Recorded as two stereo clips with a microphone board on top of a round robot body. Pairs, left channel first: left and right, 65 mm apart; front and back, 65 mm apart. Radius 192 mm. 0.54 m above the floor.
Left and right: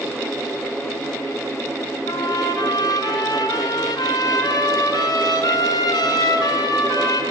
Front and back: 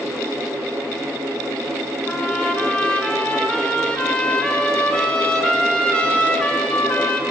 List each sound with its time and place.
2.1 s a trumpet: 75° left, 3 m